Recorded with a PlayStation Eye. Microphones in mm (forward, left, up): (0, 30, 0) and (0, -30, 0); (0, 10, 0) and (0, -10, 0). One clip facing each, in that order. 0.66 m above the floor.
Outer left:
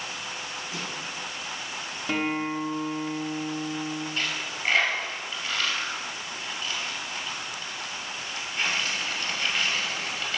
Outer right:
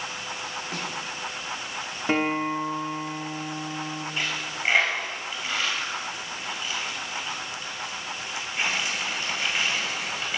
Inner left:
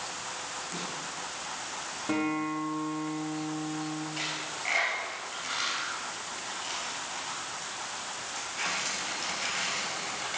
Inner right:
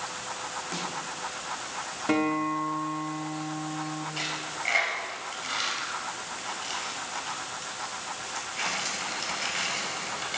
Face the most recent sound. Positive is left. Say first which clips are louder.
# outer right 1 dB, inner right 2 dB
turn(degrees=-15)  # may be behind; listen again after turning